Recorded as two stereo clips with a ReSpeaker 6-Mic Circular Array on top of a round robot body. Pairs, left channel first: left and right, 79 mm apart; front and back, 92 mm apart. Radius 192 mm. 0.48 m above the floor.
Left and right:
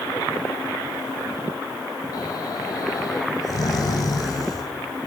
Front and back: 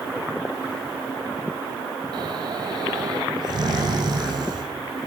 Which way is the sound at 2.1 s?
135° left.